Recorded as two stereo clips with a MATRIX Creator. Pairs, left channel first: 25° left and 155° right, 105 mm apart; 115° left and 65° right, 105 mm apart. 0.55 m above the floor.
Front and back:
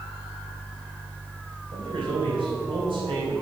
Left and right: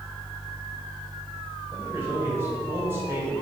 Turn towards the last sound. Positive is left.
turn(degrees=-130)